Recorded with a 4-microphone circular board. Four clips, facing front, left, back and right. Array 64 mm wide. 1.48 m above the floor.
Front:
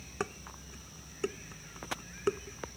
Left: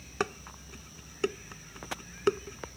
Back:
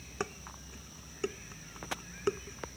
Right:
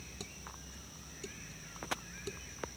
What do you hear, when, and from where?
0.2 s dishes clattering: 85° left